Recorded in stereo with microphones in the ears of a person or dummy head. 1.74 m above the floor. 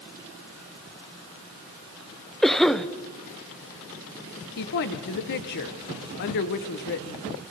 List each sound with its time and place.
2.4 s a cough: 5° left (ahead or behind), 0.7 m
4.6 s a woman speaking: 50° left (ahead or behind), 1.2 m